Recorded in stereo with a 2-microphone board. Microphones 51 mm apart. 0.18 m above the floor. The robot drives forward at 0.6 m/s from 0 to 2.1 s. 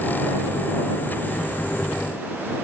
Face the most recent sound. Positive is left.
No sound to turn to.